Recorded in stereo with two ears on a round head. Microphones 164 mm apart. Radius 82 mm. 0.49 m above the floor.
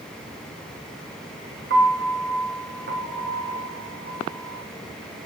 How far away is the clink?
I don't hear a clink.